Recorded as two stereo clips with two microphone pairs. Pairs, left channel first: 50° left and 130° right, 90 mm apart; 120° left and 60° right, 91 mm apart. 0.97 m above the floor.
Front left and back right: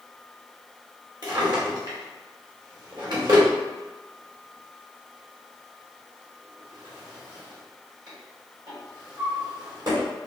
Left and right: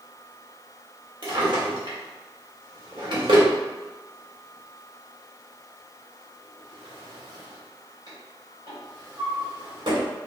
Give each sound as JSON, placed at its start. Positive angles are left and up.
{"t": 1.2, "sound": "a drawer", "azimuth_deg": -95, "distance_m": 1.3}